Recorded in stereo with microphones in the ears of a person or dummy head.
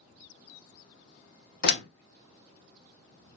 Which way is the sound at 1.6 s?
65° left (ahead or behind).